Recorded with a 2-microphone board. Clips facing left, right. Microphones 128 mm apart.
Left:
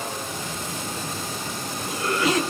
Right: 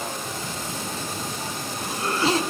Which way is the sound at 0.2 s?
30° right (ahead or behind).